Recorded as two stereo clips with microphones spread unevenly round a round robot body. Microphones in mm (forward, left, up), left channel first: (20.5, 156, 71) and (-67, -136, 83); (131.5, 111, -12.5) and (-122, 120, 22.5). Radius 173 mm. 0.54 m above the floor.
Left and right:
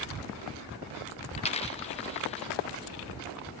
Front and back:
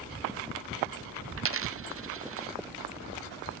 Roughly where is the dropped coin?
Behind left.